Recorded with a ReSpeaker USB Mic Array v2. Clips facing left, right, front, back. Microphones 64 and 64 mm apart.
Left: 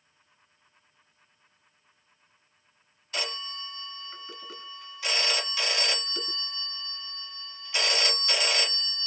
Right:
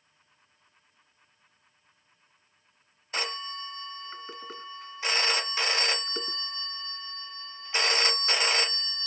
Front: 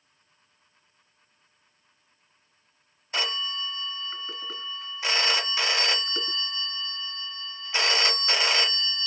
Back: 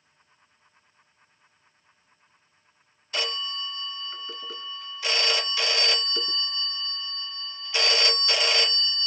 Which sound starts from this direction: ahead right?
A phone ringing, at 3.1 s.